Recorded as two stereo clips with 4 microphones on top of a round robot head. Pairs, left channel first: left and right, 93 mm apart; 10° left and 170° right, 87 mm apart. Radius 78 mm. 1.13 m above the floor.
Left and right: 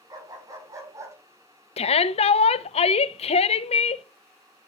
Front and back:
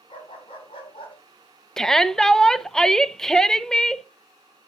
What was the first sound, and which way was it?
A dog barking, 40° right.